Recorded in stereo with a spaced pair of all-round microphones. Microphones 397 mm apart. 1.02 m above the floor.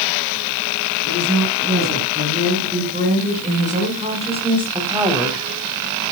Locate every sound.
1.1 s a woman speaking: 25° right (ahead or behind), 7.5 m; by 5.5 s 5° right (ahead or behind), 3 m